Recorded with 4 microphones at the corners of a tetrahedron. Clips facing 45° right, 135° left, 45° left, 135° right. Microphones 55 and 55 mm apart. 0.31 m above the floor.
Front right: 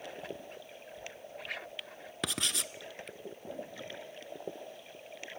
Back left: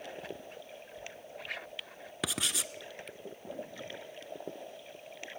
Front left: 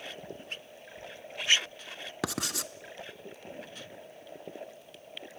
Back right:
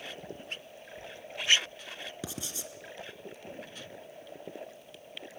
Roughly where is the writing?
Ahead left.